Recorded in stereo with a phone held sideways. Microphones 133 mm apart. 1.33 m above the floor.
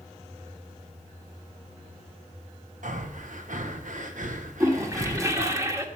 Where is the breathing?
80° right, 1.0 m.